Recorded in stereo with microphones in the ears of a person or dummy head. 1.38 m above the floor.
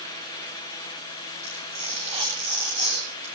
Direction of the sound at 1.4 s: 40° right (ahead or behind).